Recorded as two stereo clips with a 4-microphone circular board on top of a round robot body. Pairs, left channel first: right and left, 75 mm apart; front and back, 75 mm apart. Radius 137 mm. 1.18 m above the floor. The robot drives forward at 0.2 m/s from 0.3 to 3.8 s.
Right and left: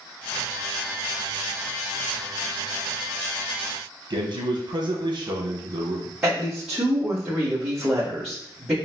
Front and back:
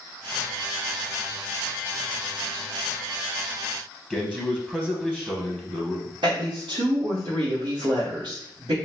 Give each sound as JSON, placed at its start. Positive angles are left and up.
{"t": 4.1, "sound": "a man speaking", "azimuth_deg": 95, "distance_m": 1.1}
{"t": 6.2, "sound": "a woman speaking", "azimuth_deg": 160, "distance_m": 1.4}